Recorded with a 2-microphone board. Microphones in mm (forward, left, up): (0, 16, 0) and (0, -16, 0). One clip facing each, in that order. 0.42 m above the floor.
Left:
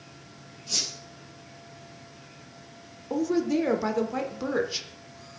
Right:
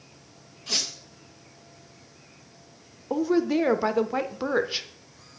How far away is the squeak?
About 4.5 m.